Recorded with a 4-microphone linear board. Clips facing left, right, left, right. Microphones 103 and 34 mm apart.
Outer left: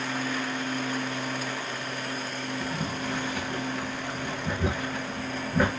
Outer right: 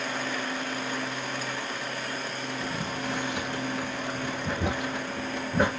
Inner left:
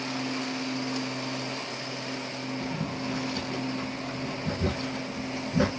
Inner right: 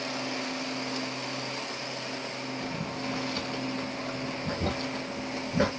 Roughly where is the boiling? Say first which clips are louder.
Even, inner left 2 dB; centre.